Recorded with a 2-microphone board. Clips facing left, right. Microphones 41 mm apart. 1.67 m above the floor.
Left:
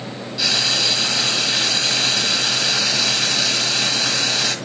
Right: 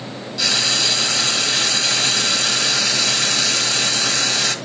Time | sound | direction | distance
0.4 | frying | 5° left (ahead or behind) | 1.3 m